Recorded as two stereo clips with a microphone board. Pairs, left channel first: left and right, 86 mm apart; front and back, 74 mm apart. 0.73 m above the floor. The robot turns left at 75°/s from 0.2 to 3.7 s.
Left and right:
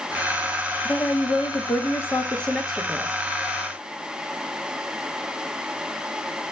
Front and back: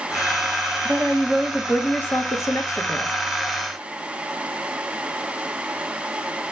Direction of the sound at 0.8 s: 135° left.